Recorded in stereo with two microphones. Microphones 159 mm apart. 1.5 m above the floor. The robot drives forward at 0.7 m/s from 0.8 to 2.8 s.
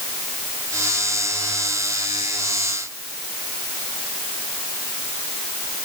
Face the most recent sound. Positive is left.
No sound to turn to.